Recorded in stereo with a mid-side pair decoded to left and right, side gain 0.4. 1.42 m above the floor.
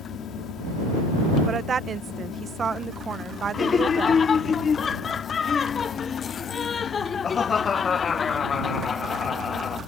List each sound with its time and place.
0.0 s a fan: 70° left
1.5 s a woman speaking: 50° right
3.5 s laughter: 45° left